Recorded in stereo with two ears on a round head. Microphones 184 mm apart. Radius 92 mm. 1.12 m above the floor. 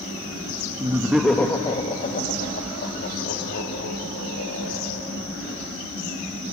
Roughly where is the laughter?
Centre.